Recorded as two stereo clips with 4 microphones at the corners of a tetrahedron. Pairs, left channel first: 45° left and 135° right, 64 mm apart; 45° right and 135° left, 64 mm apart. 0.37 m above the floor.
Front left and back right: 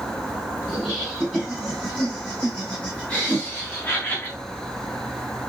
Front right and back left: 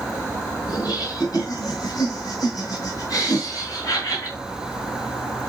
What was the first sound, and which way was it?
Laughter, 55° right.